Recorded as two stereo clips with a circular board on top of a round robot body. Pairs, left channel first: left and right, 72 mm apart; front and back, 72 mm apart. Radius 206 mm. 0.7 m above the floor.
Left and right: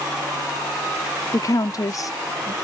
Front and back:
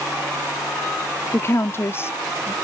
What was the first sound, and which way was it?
A woman speaking, 55° left.